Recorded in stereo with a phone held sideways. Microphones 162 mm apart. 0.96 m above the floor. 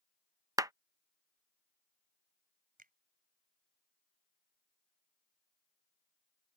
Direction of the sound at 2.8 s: 60° right (ahead or behind).